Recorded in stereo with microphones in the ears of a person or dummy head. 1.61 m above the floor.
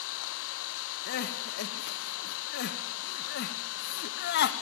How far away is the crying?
About 1.0 m.